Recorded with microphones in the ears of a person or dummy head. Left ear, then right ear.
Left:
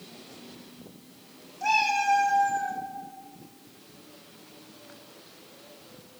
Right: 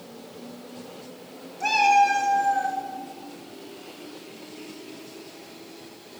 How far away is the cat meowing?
About 2.5 m.